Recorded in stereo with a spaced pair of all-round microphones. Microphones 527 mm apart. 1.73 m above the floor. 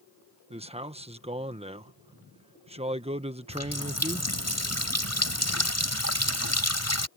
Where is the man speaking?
10° right (ahead or behind).